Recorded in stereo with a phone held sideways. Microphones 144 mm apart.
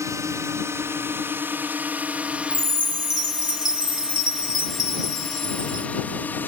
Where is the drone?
20° right (ahead or behind); by 6.5 s 15° left (ahead or behind).